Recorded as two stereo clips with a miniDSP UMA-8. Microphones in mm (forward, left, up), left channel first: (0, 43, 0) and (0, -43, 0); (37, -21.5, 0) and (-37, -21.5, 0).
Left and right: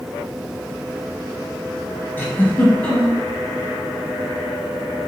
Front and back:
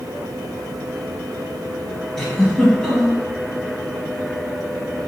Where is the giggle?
70° left, 1.3 m.